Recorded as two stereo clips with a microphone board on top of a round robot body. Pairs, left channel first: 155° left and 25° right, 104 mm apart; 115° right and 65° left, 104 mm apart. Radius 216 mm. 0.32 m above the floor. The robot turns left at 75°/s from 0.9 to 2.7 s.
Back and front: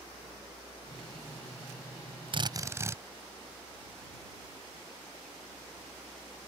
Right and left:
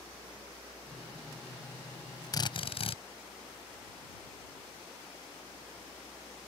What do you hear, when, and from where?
2.3 s a drill: 60° right; by 3.0 s 85° right